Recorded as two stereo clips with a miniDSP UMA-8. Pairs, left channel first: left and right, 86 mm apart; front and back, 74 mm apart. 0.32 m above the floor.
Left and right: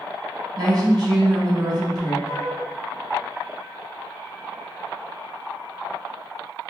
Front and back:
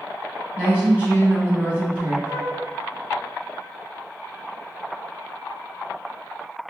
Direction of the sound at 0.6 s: 110° right.